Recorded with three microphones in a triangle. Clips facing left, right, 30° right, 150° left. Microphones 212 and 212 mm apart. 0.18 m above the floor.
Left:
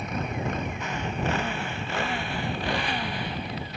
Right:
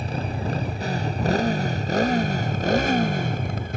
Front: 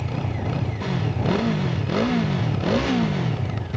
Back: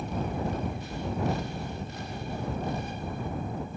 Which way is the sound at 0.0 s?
30° right.